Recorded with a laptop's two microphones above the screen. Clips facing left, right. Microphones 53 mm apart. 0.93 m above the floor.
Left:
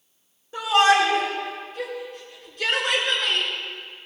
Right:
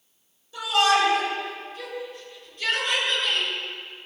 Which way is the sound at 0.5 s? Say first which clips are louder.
Left 3 dB; 45° left (ahead or behind).